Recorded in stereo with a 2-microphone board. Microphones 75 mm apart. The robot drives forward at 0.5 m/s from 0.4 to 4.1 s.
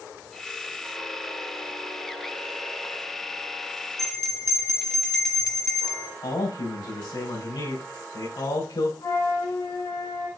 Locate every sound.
4.0 s a bell: 5° left (ahead or behind), 1.5 m
6.2 s a man speaking: 80° left, 4 m
9.0 s a flute: 70° left (ahead or behind), 4 m